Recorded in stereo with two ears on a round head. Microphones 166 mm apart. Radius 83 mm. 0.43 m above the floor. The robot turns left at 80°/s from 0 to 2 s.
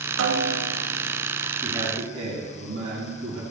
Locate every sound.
0.2 s a snare drum: 85° right, 0.5 m; by 0.8 s 140° right, 0.5 m
1.6 s a man speaking: 5° right, 2.5 m; by 3.4 s 40° right, 2.5 m